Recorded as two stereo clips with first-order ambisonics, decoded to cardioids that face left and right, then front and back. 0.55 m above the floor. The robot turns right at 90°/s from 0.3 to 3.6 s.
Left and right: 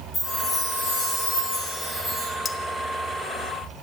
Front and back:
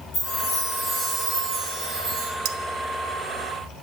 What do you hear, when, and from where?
0.1 s a chime: 35° left, 5.5 m; by 2.3 s 145° right, 5.5 m
2.5 s cutlery clinking: 165° left, 0.9 m; by 2.6 s 175° left, 0.9 m